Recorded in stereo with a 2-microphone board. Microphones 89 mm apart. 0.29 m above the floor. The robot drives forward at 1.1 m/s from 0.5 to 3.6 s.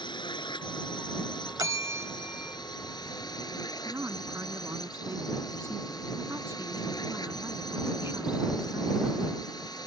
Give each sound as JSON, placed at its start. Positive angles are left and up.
{"t": 0.0, "sound": "a drone", "side_deg": 65}
{"t": 1.6, "sound": "a bell", "side_deg": -40}
{"t": 3.9, "sound": "a woman speaking", "side_deg": -30}